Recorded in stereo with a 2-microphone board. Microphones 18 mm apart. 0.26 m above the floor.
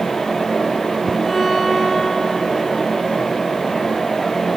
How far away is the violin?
About 4 m.